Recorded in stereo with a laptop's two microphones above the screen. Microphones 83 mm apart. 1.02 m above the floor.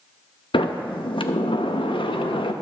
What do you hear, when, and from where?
0.5 s a sliding door: 85° left, 0.6 m